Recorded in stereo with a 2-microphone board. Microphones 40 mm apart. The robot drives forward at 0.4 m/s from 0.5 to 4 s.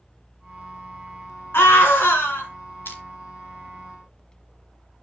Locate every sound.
1.5 s a scream: 70° left (ahead or behind), 3 m; by 2.5 s 65° left (ahead or behind), 3 m
2.9 s crushing: 65° left (ahead or behind), 1.7 m